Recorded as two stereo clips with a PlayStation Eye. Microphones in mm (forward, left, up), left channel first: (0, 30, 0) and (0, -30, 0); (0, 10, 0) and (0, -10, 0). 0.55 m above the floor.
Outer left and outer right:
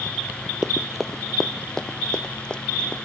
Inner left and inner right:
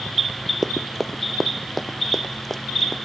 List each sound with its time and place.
0.6 s running footsteps: 10° right (ahead or behind); by 2.9 s 15° left (ahead or behind)